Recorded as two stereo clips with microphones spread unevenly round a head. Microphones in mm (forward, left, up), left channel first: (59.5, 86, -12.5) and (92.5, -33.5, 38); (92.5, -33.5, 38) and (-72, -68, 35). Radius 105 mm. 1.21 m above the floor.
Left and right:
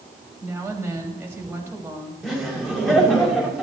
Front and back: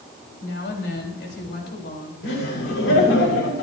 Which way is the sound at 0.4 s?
Straight ahead.